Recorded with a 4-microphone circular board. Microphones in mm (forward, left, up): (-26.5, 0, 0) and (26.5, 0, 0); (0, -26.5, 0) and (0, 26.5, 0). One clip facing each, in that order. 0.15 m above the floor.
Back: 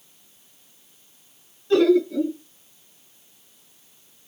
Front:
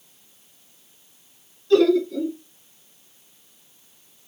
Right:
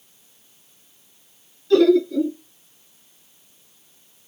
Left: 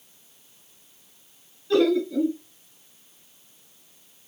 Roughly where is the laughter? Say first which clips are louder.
Even, right 5 dB; behind left.